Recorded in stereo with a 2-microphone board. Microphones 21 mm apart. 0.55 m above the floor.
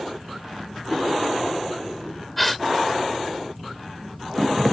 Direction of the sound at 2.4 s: 10° left (ahead or behind).